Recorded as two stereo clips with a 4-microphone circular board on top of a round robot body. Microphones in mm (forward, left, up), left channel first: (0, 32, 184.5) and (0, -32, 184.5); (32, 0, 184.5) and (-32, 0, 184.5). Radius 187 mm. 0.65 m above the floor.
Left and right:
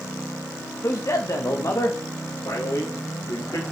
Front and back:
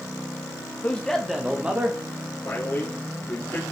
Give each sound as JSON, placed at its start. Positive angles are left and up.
{"t": 0.8, "sound": "a man speaking", "azimuth_deg": 60, "distance_m": 1.1}
{"t": 2.5, "sound": "a man speaking", "azimuth_deg": 55, "distance_m": 3.0}